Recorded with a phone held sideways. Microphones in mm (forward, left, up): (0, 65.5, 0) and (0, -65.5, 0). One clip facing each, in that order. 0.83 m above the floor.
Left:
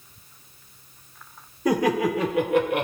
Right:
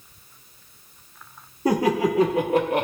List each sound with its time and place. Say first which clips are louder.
1.6 s laughter: right 1 dB; 30° right (ahead or behind), 1.4 m; by 2.9 s 35° right (ahead or behind), 0.9 m